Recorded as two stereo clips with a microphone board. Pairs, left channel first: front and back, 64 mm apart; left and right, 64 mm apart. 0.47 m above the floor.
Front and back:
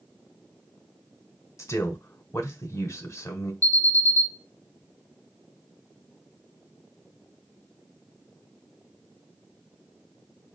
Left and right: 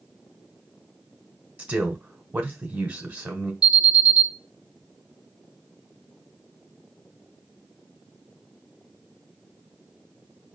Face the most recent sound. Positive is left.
turn(degrees=-160)